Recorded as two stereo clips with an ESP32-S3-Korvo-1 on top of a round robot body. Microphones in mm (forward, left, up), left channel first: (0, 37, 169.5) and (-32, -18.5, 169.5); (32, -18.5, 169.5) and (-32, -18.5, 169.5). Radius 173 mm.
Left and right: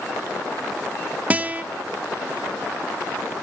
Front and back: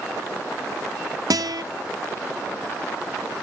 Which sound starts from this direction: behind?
A guitar, at 1.3 s.